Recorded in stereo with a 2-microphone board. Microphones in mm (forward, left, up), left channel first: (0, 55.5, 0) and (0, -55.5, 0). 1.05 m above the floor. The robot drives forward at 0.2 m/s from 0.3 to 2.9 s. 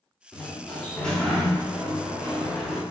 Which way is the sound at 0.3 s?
10° left (ahead or behind).